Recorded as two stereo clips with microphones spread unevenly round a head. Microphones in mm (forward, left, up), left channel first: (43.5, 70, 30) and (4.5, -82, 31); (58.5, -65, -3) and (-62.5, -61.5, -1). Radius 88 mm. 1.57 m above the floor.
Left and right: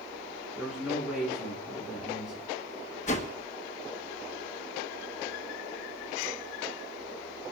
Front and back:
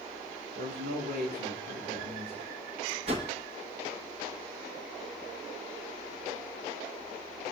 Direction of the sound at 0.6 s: 170° left.